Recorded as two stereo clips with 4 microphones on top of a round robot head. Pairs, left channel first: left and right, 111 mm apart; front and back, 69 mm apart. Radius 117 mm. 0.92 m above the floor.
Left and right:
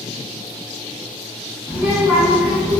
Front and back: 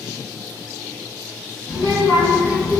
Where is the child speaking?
10° right, 1.2 m.